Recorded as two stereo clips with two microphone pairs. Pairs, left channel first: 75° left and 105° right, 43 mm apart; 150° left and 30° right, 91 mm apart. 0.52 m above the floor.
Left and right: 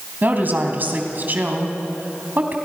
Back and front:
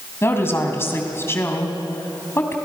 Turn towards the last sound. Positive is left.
turn(degrees=-145)